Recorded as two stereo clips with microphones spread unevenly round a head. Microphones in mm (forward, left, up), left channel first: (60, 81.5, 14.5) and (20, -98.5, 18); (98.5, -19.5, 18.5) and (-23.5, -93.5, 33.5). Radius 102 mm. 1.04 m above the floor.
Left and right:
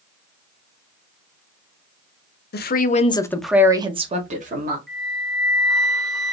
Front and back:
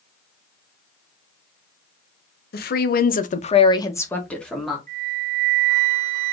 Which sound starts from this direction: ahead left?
A woman speaking, at 2.5 s.